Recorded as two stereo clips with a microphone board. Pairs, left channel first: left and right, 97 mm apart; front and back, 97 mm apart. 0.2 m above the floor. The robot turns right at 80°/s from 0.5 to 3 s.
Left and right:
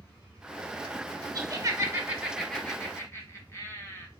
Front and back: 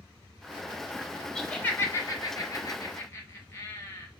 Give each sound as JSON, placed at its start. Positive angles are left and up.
{"t": 1.4, "sound": "laughter", "azimuth_deg": -85, "distance_m": 1.2}